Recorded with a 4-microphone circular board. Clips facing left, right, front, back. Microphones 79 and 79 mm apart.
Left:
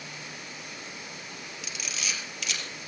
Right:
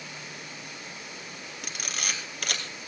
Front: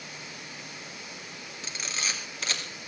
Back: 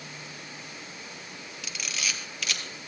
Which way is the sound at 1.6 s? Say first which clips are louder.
Right 2 dB, even; 55° right.